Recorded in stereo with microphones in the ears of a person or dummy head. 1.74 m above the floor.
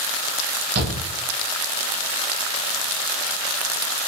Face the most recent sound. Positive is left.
turn(degrees=-60)  # may be behind; listen again after turning